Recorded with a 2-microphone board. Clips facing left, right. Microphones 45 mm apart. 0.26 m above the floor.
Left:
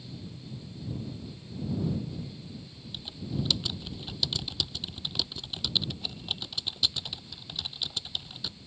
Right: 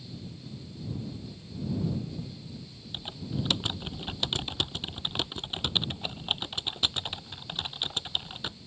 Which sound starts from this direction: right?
Typing on a keyboard, at 2.9 s.